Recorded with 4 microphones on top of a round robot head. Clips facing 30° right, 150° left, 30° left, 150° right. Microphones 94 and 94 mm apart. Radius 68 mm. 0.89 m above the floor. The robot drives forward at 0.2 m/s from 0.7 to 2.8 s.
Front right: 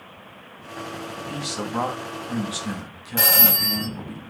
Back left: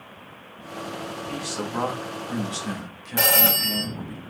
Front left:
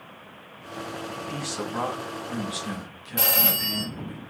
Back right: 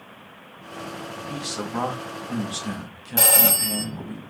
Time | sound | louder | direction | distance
1.3 | a man speaking | front right 2 dB, back right 2 dB | 85° right | 1.0 m
3.2 | a phone ringing | back left 1 dB, back right 4 dB | 140° right | 2.5 m